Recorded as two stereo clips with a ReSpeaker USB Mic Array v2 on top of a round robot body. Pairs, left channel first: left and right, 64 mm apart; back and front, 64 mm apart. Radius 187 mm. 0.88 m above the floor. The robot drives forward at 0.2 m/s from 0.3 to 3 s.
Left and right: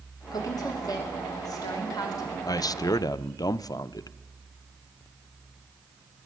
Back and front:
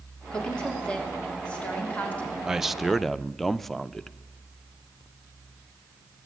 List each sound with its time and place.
0.3 s a woman speaking: 105° left, 3 m; by 2.4 s 115° left, 3 m
2.5 s a man speaking: 80° left, 0.6 m; by 4.2 s 95° left, 0.6 m